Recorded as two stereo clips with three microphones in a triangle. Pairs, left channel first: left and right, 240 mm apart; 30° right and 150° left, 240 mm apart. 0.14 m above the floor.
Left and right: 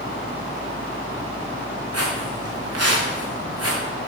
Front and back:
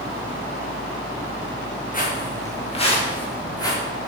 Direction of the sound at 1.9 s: 85° right.